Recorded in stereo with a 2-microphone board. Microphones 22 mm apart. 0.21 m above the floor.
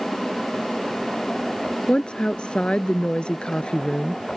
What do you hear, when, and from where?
1.9 s a woman speaking: 50° left (ahead or behind)